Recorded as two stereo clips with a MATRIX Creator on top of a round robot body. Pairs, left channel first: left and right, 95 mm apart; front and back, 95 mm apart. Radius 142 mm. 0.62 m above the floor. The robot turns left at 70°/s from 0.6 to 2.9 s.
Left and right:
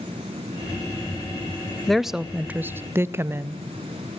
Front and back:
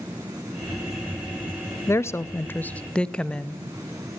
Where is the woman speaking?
5° left, 0.7 m; by 3.6 s 65° right, 0.7 m.